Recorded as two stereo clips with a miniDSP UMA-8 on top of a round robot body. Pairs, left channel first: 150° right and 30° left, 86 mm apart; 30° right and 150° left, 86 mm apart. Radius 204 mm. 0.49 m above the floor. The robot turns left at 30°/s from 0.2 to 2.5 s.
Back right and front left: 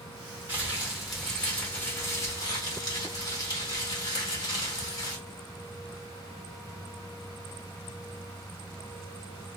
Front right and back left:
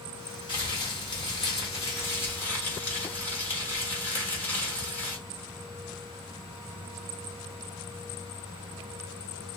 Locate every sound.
0.5 s crumpling: 45° right, 1.5 m; by 5.2 s 105° right, 1.5 m